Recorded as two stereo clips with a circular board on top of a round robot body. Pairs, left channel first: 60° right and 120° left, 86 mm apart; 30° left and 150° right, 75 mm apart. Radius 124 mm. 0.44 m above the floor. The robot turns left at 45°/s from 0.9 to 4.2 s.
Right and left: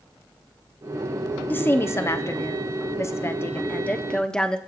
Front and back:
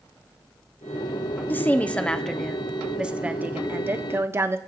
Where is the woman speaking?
15° right, 1.3 m; by 4.6 s 135° right, 1.3 m.